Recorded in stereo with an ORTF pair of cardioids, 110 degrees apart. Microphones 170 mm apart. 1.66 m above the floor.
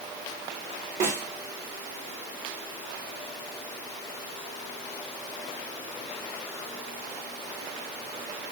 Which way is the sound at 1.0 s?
45° right.